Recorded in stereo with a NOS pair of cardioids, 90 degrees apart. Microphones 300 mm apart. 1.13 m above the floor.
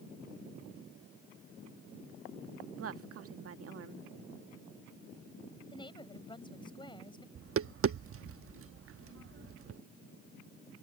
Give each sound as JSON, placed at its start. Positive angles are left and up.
{"t": 2.8, "sound": "a woman speaking", "azimuth_deg": -50}
{"t": 5.7, "sound": "a woman speaking", "azimuth_deg": 15}
{"t": 7.3, "sound": "tapping", "azimuth_deg": -50}